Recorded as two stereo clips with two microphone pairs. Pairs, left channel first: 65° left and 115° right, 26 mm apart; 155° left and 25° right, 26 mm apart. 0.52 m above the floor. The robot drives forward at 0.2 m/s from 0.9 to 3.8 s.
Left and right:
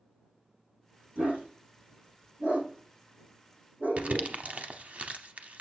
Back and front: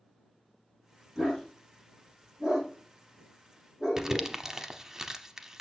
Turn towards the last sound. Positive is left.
turn(degrees=-95)